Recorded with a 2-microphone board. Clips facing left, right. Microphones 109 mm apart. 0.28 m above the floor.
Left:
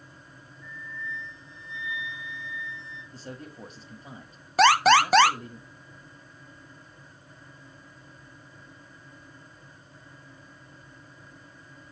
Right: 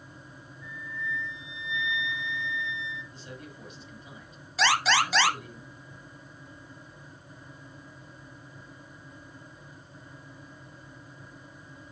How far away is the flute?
About 6 m.